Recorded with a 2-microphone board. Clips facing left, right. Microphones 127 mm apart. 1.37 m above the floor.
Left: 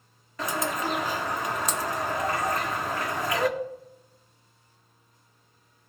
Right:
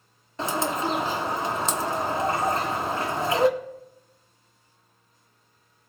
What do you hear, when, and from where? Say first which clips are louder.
0.4 s a bird: right 3 dB; 25° right (ahead or behind), 0.9 m